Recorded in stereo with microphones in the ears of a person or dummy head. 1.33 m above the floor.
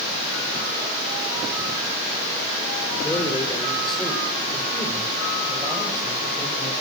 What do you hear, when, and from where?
3.0 s a man speaking: 15° left (ahead or behind), 4 m; by 6.7 s 25° right (ahead or behind), 7 m